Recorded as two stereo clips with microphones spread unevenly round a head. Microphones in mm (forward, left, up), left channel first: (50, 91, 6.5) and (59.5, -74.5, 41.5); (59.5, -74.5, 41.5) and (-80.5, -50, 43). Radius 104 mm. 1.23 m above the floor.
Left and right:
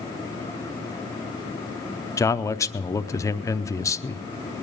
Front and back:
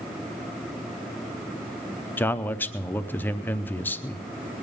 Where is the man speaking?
55° left, 0.7 m.